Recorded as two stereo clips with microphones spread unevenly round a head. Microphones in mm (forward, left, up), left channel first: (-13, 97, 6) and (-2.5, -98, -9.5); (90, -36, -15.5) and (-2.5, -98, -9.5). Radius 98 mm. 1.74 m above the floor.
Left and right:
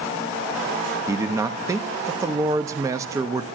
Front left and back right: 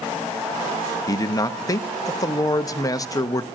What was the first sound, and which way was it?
A man speaking, 15° right.